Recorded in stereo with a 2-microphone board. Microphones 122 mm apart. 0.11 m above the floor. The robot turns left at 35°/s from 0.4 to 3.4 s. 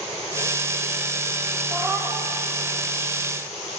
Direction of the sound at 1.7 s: 5° left (ahead or behind).